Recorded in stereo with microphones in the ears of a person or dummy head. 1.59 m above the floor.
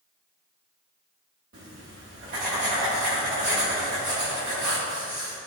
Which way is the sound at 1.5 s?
45° right (ahead or behind).